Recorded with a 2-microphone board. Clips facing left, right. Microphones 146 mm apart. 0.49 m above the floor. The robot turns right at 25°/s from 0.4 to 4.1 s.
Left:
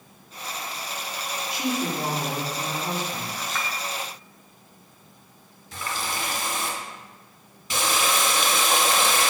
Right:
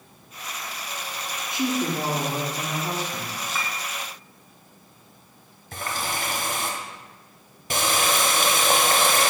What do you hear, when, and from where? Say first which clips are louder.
1.5 s a woman speaking: right 2 dB; 45° right, 0.8 m; by 3.3 s straight ahead, 0.8 m
3.4 s a clink: even; 10° right (ahead or behind), 0.6 m
5.7 s a running tap: right 1 dB; 50° right (ahead or behind), 0.6 m